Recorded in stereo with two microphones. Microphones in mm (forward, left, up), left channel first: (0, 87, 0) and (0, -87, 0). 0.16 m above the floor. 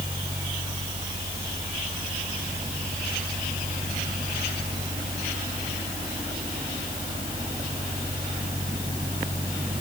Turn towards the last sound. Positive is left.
No sound to turn to.